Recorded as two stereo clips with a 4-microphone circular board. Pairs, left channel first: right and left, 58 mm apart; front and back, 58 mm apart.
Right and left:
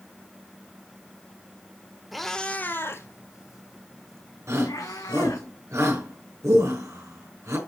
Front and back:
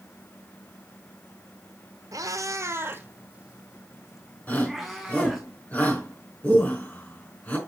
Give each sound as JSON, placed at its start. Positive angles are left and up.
{"t": 2.1, "sound": "a cat meowing", "azimuth_deg": 175, "distance_m": 1.1}
{"t": 4.5, "sound": "a shout", "azimuth_deg": 60, "distance_m": 4.5}